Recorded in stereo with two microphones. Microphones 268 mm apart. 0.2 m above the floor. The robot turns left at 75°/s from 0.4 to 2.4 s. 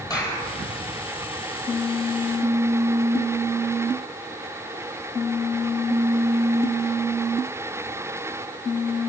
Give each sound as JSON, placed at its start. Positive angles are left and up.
{"t": 0.1, "sound": "a clap", "side_deg": 15, "distance_m": 4.0}